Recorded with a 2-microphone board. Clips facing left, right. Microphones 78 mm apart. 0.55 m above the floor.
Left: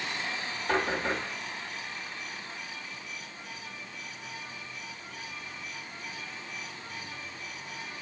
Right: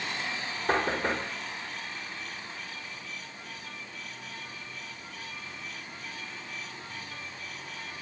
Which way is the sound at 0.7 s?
60° right (ahead or behind).